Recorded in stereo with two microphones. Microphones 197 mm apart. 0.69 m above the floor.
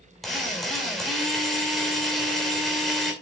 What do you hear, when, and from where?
0.2 s a drill: centre (ahead or behind), 2.5 m